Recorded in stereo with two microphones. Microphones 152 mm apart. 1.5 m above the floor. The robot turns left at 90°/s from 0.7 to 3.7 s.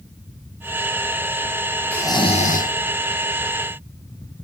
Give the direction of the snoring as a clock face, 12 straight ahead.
6 o'clock.